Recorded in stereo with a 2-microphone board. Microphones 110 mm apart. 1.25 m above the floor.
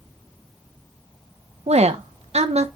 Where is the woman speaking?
80° right, 0.9 m.